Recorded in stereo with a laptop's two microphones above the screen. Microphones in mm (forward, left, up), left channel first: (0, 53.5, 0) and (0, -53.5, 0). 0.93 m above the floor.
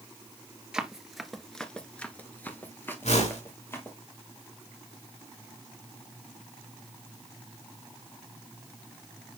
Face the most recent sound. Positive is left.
turn(degrees=85)